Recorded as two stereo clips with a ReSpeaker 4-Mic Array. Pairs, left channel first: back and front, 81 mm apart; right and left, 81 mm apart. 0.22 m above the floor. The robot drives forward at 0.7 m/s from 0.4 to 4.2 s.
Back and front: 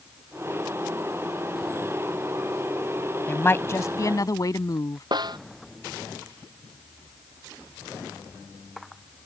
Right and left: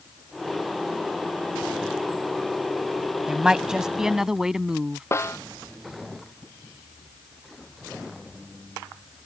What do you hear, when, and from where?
3.3 s a woman speaking: 155° left; by 5.0 s 170° left
5.1 s a snare drum: 30° right